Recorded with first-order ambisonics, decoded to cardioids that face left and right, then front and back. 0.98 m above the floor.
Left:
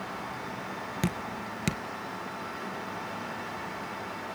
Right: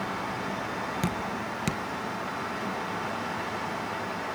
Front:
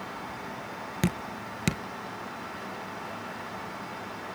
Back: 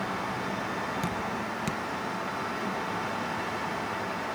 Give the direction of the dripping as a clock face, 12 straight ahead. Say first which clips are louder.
Right 3 dB, back 3 dB; 12 o'clock.